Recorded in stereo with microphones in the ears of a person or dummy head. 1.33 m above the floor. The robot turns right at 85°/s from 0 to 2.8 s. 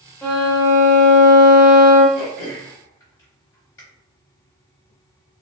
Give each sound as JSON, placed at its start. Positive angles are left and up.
{"t": 0.2, "sound": "a violin", "azimuth_deg": 170, "distance_m": 0.7}
{"t": 2.1, "sound": "throat clearing", "side_deg": -20, "distance_m": 1.4}